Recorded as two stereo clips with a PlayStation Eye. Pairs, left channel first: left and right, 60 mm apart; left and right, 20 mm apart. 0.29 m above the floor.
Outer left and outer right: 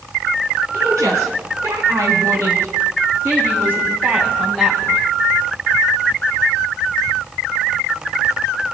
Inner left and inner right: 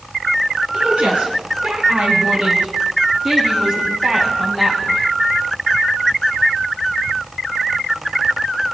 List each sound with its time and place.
0.7 s a woman speaking: 65° right (ahead or behind), 3.5 m; by 5.0 s 10° right (ahead or behind), 2 m